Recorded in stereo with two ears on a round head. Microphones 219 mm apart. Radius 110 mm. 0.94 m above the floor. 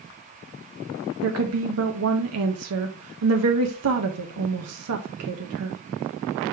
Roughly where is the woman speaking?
Right.